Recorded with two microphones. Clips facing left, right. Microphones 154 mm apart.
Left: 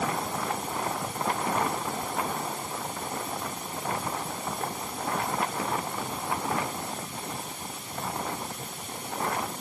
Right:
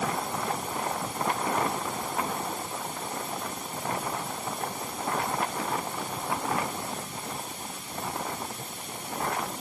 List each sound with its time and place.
Only background noise.